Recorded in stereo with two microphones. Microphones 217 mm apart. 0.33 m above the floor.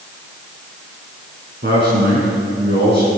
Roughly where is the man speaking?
Right.